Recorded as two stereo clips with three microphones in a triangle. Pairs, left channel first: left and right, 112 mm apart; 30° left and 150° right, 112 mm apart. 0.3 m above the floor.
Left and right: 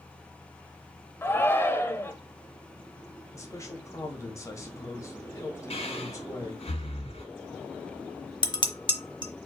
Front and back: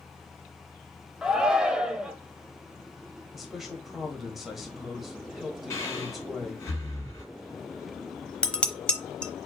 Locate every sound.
1.2 s a shout: 135° left, 0.9 m
3.3 s a man speaking: 125° left, 1.4 m
5.7 s breathing: 90° left, 2.5 m
8.4 s dishes clattering: 105° left, 0.8 m